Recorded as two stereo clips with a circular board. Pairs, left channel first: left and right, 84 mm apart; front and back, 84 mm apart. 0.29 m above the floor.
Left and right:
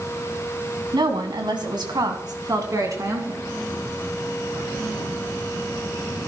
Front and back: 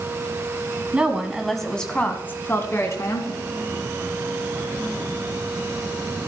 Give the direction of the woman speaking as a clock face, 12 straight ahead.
4 o'clock.